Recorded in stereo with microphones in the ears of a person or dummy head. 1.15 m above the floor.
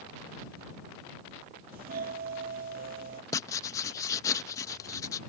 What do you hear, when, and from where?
1.7 s a doorbell: 45° right (ahead or behind)
3.3 s writing: 20° left (ahead or behind)